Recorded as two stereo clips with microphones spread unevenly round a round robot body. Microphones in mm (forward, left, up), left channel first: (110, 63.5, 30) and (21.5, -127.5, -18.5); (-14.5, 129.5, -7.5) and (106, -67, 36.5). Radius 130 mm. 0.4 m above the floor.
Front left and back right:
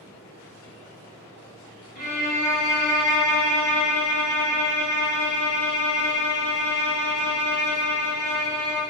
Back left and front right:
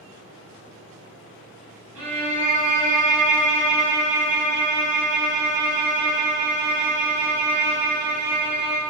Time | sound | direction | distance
1.9 | a violin | straight ahead | 1.8 m